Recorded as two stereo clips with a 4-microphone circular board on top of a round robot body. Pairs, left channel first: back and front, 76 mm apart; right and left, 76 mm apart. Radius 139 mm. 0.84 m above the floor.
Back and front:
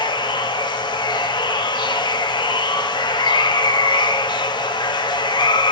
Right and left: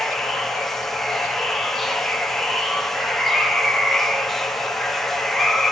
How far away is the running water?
About 1.3 m.